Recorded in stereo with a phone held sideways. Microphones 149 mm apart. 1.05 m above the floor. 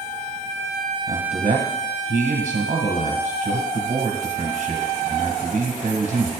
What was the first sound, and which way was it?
A man speaking, 50° right (ahead or behind).